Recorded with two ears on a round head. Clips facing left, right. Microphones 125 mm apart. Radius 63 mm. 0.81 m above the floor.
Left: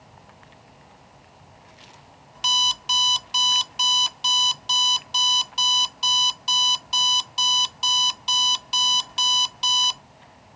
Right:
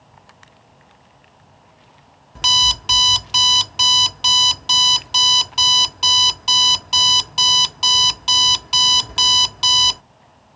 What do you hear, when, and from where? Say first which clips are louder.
2.4 s an alarm clock: right 5 dB; 60° right (ahead or behind)